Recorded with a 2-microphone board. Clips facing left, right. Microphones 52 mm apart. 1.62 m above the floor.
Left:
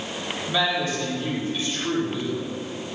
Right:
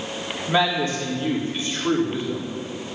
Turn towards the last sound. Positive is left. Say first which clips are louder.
# right 3 dB
turn(degrees=-30)  # may be behind; listen again after turning